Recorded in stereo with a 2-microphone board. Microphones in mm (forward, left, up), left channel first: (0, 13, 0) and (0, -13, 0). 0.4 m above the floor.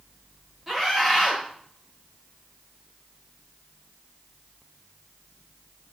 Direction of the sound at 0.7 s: 10° right (ahead or behind).